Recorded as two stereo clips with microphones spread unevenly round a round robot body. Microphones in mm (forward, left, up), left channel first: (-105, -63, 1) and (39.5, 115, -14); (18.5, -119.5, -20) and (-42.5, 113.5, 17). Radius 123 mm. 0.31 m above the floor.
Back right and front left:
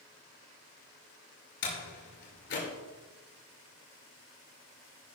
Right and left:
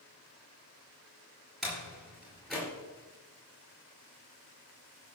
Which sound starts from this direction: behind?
A door slam, at 1.6 s.